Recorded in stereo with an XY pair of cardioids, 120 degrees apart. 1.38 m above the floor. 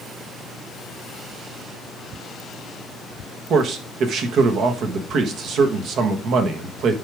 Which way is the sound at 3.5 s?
60° right.